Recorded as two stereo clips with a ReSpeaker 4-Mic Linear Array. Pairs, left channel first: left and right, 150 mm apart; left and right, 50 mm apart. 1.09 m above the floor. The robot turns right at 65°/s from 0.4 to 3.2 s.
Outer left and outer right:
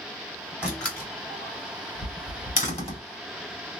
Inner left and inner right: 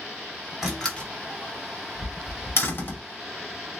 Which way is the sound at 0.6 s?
5° right (ahead or behind).